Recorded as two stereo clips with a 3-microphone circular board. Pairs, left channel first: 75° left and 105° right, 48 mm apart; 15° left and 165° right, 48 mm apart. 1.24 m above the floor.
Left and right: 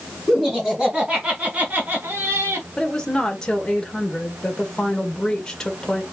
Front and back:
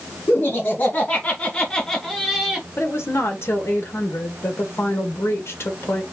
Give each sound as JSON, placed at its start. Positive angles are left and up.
{"t": 0.3, "sound": "laughter", "azimuth_deg": -30, "distance_m": 2.5}
{"t": 2.8, "sound": "a woman speaking", "azimuth_deg": -5, "distance_m": 1.6}